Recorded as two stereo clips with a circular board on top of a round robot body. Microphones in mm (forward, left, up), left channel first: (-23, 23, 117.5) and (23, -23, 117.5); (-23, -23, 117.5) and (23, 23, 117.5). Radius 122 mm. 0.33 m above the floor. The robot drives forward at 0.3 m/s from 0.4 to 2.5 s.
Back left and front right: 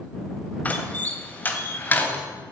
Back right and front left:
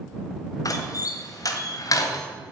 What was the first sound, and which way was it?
A door slam, 160° right.